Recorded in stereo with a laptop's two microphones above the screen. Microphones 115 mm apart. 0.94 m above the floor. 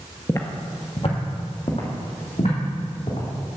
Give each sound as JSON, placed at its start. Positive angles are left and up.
{"t": 0.3, "sound": "footsteps", "side_deg": 25, "distance_m": 1.0}